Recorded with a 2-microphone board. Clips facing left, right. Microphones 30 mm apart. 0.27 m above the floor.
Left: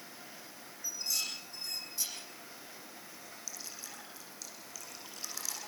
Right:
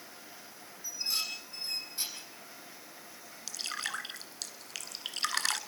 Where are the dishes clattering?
35° right (ahead or behind), 8 m.